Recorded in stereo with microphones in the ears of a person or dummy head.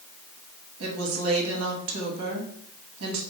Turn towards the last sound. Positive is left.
turn(degrees=-85)